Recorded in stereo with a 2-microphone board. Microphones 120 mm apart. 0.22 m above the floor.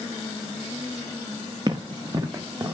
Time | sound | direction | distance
1.7 | running footsteps | 35° right (ahead or behind) | 0.9 m